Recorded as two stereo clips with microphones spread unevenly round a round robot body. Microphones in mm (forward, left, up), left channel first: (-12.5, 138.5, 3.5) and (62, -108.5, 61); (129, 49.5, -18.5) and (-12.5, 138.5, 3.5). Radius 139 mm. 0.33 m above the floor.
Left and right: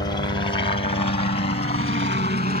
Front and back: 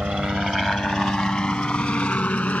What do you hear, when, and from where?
0.0 s a helicopter: 65° left; by 2.6 s 50° left